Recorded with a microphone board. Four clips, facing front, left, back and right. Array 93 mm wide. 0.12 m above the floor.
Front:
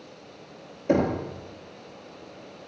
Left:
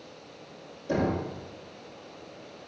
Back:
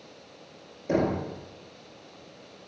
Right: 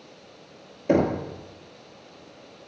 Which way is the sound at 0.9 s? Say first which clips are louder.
Right 6 dB, front 3 dB; 65° right.